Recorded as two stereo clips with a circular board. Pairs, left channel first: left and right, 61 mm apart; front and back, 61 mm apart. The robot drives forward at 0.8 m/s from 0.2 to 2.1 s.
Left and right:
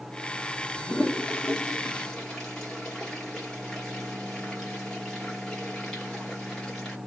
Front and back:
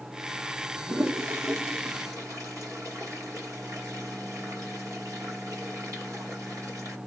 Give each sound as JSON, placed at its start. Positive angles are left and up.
{"t": 0.8, "sound": "a toilet flushing", "azimuth_deg": 145, "distance_m": 0.8}